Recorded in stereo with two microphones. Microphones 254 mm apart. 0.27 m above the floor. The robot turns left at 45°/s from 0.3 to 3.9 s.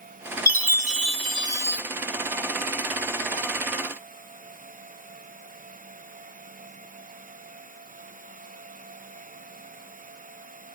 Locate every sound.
0.5 s a chime: 110° right, 1.3 m; by 1.8 s 170° right, 1.3 m